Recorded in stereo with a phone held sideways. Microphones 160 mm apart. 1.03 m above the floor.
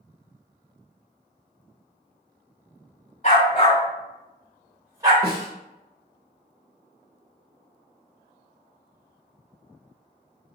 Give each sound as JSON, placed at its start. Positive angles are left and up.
{"t": 3.2, "sound": "a dog barking", "side_deg": 50, "distance_m": 2.0}
{"t": 5.2, "sound": "a snare drum", "side_deg": -75, "distance_m": 1.0}